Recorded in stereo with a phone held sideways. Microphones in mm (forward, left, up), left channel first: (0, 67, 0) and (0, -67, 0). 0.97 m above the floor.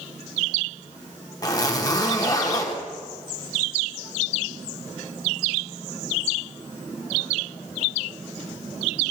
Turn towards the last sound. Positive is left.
turn(degrees=30)  # may be behind; listen again after turning